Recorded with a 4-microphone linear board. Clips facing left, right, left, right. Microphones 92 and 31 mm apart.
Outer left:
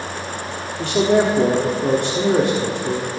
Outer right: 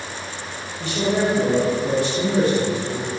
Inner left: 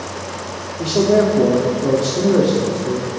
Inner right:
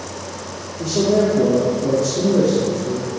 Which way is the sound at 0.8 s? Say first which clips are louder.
Outer left 5 dB, inner left 2 dB; 65° left (ahead or behind).